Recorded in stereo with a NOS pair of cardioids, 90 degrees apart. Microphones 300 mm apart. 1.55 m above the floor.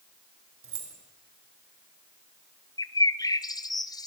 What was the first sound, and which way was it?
Keys jangling, 40° right.